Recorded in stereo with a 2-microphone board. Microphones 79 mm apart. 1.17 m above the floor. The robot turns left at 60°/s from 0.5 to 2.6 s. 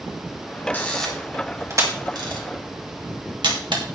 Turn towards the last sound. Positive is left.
turn(degrees=-75)  # may be behind; listen again after turning